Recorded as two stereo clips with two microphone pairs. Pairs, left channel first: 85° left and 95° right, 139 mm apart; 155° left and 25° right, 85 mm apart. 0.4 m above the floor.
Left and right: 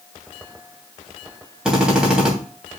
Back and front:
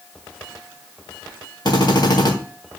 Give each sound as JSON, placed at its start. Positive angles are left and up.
{"t": 1.6, "sound": "a drill", "azimuth_deg": 180, "distance_m": 3.0}